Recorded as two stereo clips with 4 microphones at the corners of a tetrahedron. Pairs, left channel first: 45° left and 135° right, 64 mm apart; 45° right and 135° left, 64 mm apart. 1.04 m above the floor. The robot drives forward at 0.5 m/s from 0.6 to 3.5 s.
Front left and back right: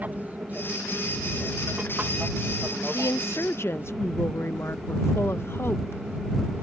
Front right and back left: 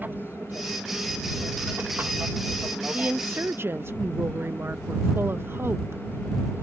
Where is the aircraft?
175° left.